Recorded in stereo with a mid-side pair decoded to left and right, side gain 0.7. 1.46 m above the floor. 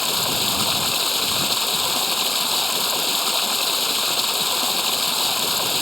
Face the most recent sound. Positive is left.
turn(degrees=10)